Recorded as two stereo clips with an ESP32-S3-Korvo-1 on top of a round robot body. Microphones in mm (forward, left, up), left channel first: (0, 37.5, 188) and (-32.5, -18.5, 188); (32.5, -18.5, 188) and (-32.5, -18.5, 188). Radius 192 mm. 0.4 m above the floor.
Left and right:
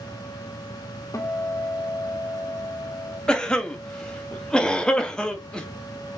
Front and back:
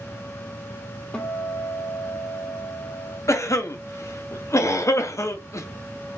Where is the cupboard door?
I don't hear a cupboard door.